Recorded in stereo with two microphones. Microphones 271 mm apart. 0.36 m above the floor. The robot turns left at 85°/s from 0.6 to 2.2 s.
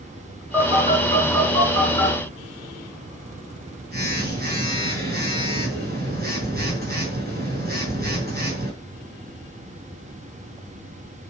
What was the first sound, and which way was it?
A phone buzzing, 5° right.